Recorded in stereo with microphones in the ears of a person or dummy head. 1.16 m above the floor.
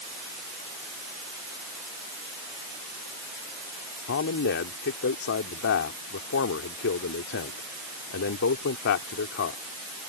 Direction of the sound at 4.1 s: 60° left (ahead or behind).